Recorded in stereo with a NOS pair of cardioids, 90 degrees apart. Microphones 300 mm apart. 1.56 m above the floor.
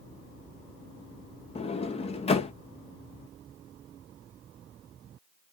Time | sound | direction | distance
1.6 | a sliding door | 20° left | 0.6 m